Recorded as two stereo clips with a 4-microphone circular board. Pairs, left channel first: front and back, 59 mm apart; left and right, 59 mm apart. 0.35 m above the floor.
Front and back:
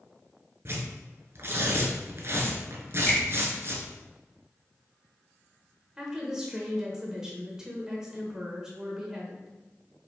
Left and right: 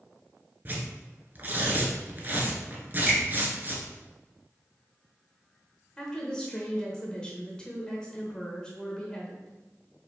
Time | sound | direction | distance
0.7 | tearing paper | 145° right | 1.0 m
3.1 | a finger snap | 20° right | 1.4 m
6.0 | a woman speaking | 125° left | 1.0 m